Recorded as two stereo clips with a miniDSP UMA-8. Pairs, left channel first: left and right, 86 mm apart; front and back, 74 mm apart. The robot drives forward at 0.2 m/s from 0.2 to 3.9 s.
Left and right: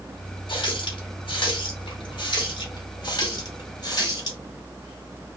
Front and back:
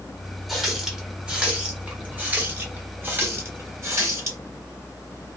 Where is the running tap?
95° left, 1.0 m; by 4.4 s 130° left, 1.2 m.